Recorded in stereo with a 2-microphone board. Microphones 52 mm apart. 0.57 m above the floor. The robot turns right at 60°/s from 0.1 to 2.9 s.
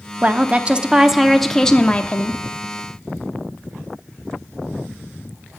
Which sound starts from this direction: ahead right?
A woman speaking, at 0.2 s.